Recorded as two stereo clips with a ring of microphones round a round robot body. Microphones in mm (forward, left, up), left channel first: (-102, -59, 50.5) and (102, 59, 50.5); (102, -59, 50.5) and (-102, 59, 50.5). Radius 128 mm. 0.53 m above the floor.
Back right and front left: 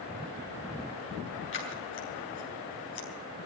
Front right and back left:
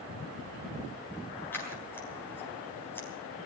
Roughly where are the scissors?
Right.